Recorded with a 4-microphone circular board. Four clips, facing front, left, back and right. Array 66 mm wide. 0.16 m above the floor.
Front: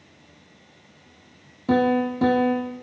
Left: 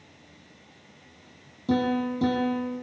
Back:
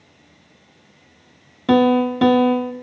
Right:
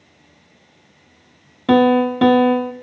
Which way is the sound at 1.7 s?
120° right.